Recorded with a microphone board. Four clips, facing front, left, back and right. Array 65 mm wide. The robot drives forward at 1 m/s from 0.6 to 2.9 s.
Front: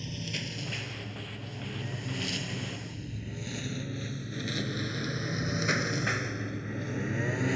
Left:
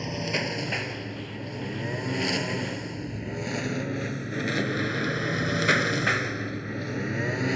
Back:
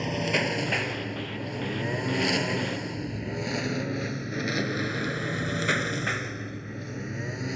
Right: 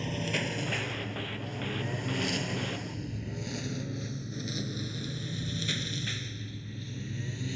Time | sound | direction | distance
0.0 | a lawn mower | 165° left | ?